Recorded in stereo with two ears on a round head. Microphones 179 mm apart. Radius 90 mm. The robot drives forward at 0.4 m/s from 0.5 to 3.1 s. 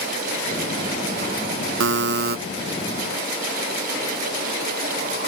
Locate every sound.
1.8 s a buzzer: 70° right (ahead or behind); by 2.4 s 55° right (ahead or behind)